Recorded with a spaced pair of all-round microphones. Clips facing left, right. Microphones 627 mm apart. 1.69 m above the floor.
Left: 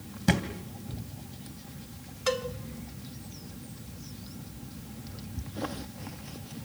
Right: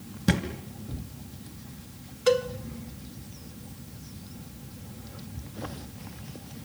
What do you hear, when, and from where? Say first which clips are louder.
0.3 s a thud: right 1 dB; 5° left (ahead or behind), 3 m
2.3 s a cowbell: right 7 dB; 5° left (ahead or behind), 1.1 m